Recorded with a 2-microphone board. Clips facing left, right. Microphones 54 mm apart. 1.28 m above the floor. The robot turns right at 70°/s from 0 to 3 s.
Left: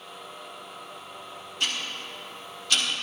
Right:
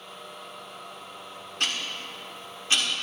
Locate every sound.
1.6 s ticking: 60° right (ahead or behind), 1.6 m; by 2.8 s 20° right (ahead or behind), 1.6 m